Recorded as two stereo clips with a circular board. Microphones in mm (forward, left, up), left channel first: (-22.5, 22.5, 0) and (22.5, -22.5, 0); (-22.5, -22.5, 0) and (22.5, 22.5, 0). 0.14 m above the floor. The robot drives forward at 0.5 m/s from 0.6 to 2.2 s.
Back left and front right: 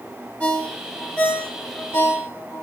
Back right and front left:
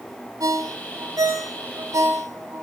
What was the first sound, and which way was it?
A ringtone, 65° left.